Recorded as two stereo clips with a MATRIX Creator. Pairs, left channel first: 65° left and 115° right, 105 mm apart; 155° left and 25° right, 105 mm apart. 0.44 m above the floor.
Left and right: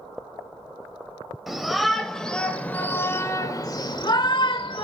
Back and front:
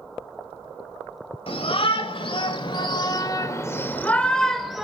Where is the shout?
160° left, 1.9 m; by 4.8 s 65° left, 1.4 m.